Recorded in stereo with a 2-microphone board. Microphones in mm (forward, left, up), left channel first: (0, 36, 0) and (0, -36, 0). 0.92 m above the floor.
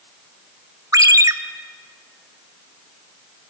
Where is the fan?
No fan in this recording.